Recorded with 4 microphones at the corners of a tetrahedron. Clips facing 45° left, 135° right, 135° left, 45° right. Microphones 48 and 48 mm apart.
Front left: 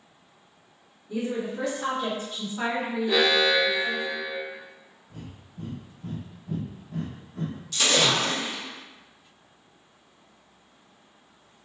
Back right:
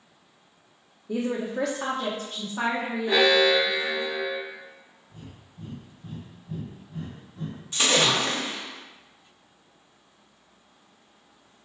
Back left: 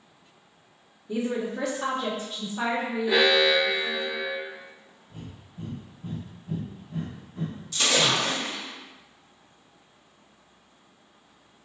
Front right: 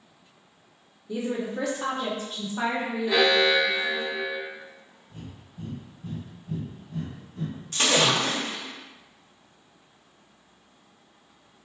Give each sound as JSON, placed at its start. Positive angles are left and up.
{"t": 1.1, "sound": "a woman speaking", "azimuth_deg": -140, "distance_m": 0.6}
{"t": 3.1, "sound": "an alarm", "azimuth_deg": -150, "distance_m": 1.4}
{"t": 5.1, "sound": "breathing", "azimuth_deg": 65, "distance_m": 0.7}
{"t": 7.7, "sound": "a splash", "azimuth_deg": -80, "distance_m": 0.9}